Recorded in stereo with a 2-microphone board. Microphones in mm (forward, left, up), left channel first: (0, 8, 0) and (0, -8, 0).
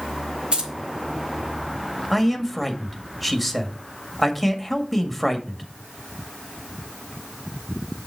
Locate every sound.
0.5 s keys jangling: 75° right (ahead or behind), 2.5 m
2.1 s a man speaking: centre (ahead or behind), 1.8 m